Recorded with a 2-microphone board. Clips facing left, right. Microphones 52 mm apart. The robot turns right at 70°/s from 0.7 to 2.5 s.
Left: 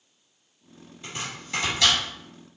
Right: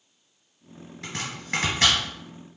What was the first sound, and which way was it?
Chopping, 80° right.